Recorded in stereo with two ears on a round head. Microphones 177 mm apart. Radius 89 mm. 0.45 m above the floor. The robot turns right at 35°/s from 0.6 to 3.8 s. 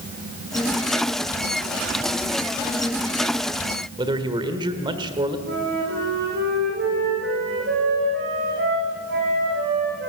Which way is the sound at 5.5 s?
60° right (ahead or behind).